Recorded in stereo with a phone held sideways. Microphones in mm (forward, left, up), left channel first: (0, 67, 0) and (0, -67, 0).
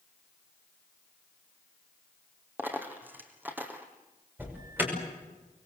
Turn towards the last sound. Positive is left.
turn(degrees=-15)  # may be behind; listen again after turning